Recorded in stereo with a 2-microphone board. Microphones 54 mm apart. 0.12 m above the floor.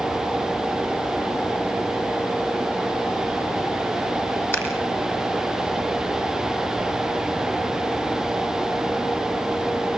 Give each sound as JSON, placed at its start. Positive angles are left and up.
{"t": 4.5, "sound": "scissors", "side_deg": 50, "distance_m": 3.5}